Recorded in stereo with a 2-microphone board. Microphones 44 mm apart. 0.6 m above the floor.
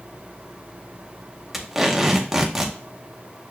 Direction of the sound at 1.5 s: 10° right (ahead or behind).